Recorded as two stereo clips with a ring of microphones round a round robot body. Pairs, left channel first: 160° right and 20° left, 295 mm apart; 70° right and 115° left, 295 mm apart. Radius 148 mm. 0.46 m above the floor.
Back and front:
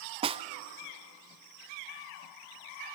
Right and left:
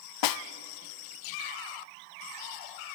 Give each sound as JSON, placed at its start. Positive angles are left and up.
{"t": 0.2, "sound": "a snare drum", "azimuth_deg": -50, "distance_m": 0.7}